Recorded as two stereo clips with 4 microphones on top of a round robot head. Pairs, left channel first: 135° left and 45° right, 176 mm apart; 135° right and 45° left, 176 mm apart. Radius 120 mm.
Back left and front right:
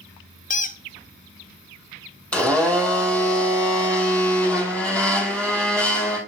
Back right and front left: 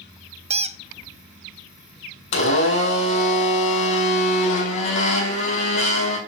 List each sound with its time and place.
0.5 s a squeak: 95° left, 0.6 m
2.3 s a blender: 140° right, 3 m